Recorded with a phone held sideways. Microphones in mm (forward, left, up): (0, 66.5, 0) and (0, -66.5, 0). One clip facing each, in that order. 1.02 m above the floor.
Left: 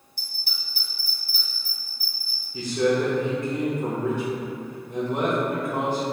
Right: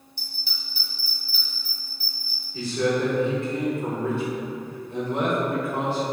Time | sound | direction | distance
0.2 | a bell | 50° left (ahead or behind) | 1.4 m
2.5 | a man speaking | 20° left (ahead or behind) | 0.7 m